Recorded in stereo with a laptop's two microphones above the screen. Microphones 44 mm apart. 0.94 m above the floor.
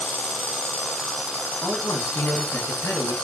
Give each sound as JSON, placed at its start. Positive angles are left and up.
{"t": 1.6, "sound": "a man speaking", "side_deg": 85, "distance_m": 7.5}